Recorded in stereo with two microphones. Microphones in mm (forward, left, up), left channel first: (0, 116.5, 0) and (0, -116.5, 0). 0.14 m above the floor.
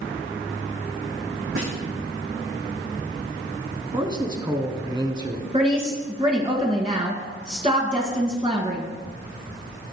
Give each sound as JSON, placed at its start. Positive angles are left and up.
{"t": 1.6, "sound": "a snare drum", "side_deg": -65, "distance_m": 5.0}
{"t": 3.9, "sound": "a man speaking", "side_deg": -20, "distance_m": 1.3}
{"t": 5.5, "sound": "a woman speaking", "side_deg": -25, "distance_m": 1.8}